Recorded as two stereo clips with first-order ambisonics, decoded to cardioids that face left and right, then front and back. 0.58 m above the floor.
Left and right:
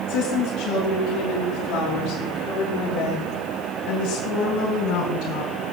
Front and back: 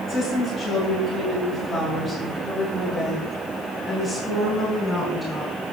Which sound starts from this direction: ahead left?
A woman speaking, at 0.1 s.